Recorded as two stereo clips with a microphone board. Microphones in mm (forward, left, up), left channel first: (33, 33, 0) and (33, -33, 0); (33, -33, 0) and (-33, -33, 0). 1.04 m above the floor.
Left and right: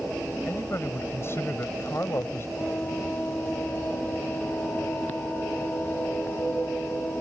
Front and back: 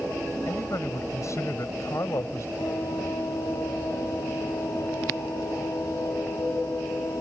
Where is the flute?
30° left.